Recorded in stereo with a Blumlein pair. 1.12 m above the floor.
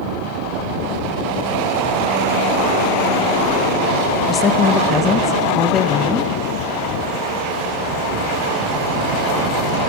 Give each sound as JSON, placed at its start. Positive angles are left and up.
{"t": 4.3, "sound": "a woman speaking", "azimuth_deg": 20, "distance_m": 0.5}